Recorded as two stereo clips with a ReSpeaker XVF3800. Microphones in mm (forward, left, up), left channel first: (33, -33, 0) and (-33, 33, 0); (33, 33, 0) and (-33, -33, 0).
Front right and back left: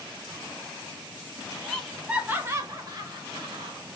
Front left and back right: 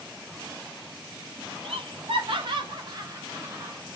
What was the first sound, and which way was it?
Laughter, 130° right.